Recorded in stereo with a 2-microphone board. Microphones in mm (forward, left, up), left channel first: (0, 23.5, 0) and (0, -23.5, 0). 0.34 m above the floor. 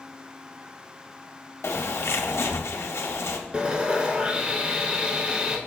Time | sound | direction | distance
1.6 | a bird | 65° left (ahead or behind) | 0.5 m
3.5 | sawing | 20° right (ahead or behind) | 0.6 m